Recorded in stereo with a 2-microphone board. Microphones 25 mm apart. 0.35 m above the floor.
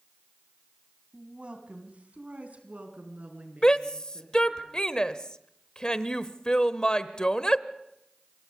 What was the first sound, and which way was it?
A woman speaking, 45° right (ahead or behind).